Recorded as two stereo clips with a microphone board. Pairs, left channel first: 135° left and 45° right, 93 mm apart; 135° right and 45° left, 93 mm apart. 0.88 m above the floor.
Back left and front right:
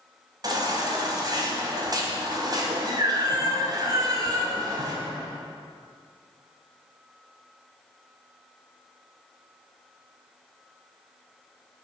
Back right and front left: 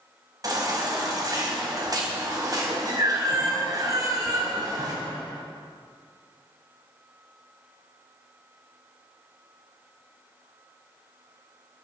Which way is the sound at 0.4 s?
Straight ahead.